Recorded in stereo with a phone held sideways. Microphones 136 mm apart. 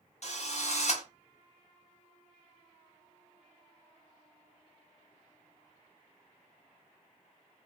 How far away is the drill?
About 0.7 m.